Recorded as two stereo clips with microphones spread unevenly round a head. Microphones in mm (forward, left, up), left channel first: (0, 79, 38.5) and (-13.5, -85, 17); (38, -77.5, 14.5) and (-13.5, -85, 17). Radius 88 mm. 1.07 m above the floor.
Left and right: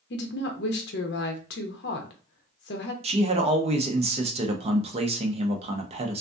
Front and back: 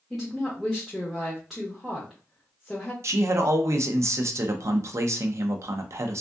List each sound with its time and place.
0.1 s a woman speaking: 100° left, 0.7 m
3.0 s a man speaking: 145° right, 0.6 m